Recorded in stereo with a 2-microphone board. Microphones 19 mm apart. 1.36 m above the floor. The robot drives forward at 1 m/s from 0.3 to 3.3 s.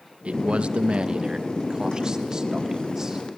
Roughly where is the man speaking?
Right.